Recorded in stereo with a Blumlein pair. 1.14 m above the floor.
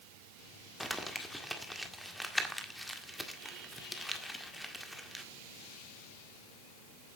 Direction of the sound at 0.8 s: Straight ahead.